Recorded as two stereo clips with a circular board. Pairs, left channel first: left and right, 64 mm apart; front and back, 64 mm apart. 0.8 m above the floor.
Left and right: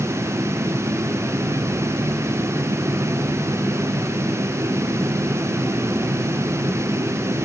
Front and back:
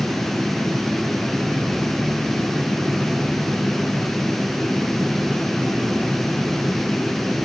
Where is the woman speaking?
I don't hear a woman speaking.